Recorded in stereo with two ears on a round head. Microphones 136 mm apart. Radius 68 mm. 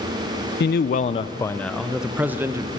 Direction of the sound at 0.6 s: 70° left (ahead or behind).